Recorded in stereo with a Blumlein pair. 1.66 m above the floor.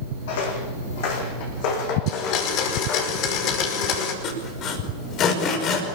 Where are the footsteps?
50° left, 6 m; by 3.1 s 35° left, 6 m.